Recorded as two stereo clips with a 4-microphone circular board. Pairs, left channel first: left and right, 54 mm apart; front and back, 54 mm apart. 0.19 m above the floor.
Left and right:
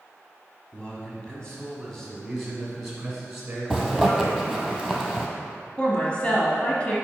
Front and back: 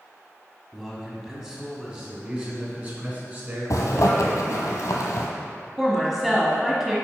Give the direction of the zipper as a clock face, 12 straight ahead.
12 o'clock.